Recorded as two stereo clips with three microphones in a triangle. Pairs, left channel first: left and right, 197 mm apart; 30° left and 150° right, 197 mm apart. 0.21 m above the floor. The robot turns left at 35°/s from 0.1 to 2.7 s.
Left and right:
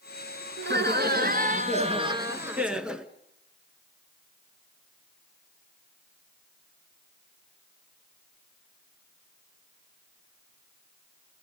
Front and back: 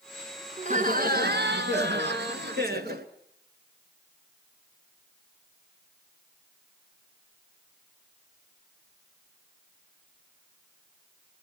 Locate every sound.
0.6 s laughter: 100° right, 2.5 m; by 3.1 s 175° right, 2.5 m